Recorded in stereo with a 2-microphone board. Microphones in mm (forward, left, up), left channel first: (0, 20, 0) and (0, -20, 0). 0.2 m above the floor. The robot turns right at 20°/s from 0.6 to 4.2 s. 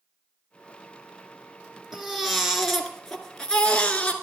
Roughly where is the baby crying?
Ahead.